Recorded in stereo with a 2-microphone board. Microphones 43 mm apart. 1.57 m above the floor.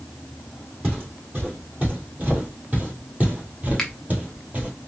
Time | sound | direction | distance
0.8 | footsteps | 40° right (ahead or behind) | 2.5 m
3.8 | a finger snap | 10° left (ahead or behind) | 0.9 m